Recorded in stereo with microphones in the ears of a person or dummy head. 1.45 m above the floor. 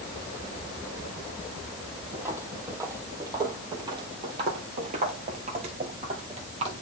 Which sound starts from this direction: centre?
Footsteps, at 2.1 s.